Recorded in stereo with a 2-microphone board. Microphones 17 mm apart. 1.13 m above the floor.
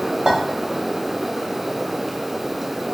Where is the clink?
50° right (ahead or behind), 1.3 m.